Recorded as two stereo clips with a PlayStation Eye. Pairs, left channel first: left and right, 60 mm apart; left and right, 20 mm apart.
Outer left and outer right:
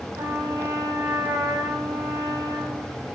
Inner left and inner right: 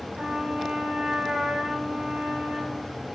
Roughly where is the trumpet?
Right.